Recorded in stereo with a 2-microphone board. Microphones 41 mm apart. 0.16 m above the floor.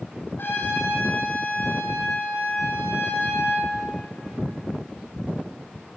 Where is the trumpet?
65° left (ahead or behind), 7 m.